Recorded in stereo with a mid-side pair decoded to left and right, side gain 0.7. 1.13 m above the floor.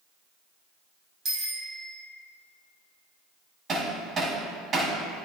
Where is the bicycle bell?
40° right, 5 m.